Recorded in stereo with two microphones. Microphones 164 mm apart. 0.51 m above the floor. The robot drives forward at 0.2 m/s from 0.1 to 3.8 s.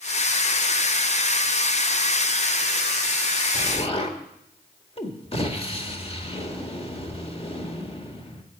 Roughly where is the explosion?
Left.